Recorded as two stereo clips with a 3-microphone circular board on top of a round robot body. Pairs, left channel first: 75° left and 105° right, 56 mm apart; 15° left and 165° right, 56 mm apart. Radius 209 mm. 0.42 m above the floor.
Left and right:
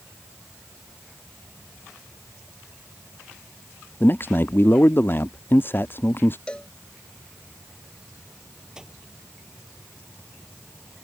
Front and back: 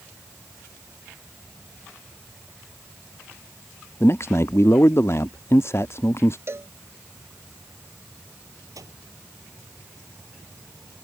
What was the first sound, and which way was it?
A man speaking, 35° left.